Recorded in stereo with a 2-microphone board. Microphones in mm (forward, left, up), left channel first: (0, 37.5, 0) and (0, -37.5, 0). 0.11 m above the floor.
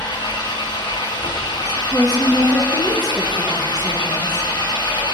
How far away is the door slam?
No door slam in this recording.